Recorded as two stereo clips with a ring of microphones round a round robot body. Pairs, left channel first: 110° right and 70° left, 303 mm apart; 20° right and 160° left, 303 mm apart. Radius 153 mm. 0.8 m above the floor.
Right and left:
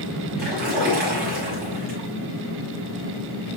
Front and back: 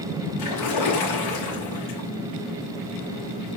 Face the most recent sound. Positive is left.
turn(degrees=5)